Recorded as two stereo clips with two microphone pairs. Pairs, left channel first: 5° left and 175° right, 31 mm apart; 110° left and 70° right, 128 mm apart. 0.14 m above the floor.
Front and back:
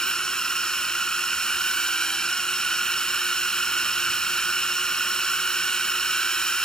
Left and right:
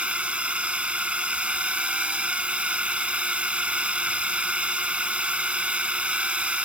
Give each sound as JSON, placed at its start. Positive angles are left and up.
{"t": 0.0, "sound": "a drone", "azimuth_deg": -10}